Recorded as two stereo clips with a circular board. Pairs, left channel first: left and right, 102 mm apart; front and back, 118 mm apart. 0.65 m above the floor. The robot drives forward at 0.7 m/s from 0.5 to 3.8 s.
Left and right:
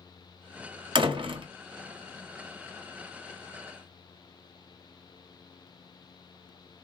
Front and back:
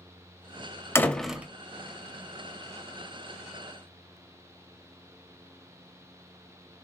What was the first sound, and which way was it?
A door slam, 65° right.